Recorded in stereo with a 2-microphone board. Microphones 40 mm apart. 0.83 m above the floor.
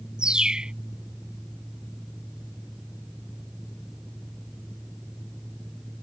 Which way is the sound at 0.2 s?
25° right (ahead or behind).